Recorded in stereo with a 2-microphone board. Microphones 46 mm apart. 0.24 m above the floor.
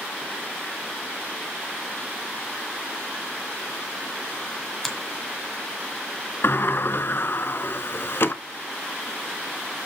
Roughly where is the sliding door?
Left.